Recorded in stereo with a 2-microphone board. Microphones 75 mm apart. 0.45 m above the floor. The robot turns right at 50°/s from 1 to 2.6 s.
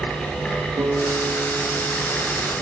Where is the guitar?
80° right, 6.5 m; by 2.5 s straight ahead, 6.5 m.